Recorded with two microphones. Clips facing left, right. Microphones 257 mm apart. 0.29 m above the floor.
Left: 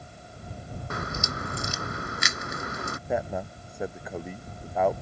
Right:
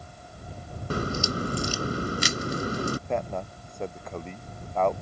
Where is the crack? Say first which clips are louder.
Right 7 dB; 35° right (ahead or behind).